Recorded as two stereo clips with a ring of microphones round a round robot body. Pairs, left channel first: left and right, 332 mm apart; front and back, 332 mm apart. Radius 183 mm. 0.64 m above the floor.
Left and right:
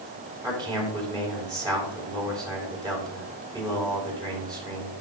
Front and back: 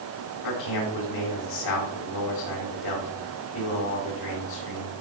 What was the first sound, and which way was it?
A man speaking, 10° right.